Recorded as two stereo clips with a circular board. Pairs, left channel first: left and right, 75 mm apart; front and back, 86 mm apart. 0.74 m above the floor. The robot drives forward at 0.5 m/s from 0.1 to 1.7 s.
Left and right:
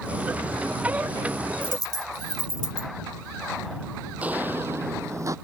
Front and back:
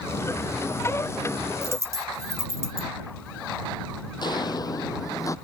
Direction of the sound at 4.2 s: 20° right.